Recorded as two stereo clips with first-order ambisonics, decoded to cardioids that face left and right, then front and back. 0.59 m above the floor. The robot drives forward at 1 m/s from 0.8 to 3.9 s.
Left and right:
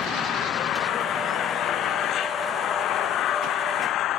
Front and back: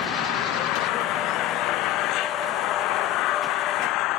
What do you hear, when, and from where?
0.0 s an engine running: 35° left; by 4.2 s 40° left